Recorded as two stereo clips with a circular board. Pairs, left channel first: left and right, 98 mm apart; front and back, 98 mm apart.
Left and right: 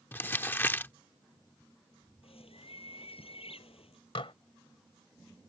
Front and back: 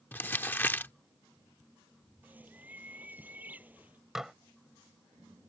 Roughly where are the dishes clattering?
Left.